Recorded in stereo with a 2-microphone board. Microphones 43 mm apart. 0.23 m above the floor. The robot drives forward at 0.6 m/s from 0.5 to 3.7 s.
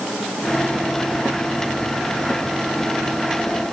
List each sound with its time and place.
Only background noise.